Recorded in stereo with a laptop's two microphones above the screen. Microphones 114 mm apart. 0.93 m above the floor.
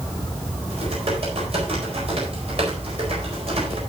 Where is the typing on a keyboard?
60° right (ahead or behind), 4.5 m.